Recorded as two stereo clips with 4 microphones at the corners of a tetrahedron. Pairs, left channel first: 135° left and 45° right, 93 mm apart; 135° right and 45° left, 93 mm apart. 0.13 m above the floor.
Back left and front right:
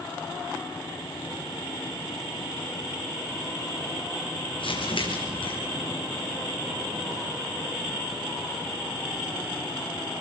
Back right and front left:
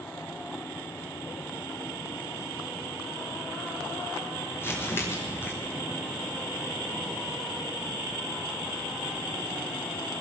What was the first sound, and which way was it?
Crumpling, 160° left.